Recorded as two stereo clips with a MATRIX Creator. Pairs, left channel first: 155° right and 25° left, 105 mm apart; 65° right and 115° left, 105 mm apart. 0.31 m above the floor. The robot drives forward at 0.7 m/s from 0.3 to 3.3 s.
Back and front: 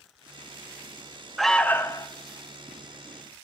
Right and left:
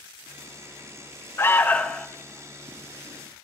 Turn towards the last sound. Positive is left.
turn(degrees=-170)